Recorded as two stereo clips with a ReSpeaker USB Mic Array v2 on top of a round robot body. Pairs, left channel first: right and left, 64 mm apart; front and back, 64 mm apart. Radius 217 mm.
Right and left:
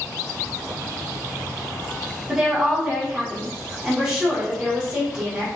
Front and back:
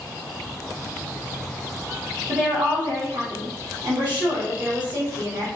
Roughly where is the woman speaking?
Behind.